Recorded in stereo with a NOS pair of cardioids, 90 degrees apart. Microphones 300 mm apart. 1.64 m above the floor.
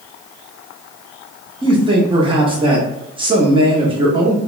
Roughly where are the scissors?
I don't hear scissors.